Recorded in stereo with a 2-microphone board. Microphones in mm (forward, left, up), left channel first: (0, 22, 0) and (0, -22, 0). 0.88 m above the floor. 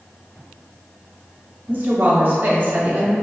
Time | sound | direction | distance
1.7 | a woman speaking | 40° right (ahead or behind) | 1.1 m